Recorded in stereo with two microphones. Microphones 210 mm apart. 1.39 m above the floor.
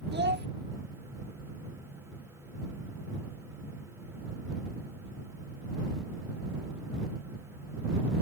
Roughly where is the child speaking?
Right.